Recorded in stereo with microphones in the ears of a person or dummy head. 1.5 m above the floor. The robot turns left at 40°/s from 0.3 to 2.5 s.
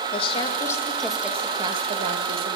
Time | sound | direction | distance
0.1 | a woman speaking | 30° left | 2 m